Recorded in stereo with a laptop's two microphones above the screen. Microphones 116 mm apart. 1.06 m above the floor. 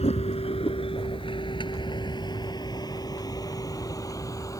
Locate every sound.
0.0 s a vehicle: 65° left (ahead or behind); by 4.6 s 30° left (ahead or behind)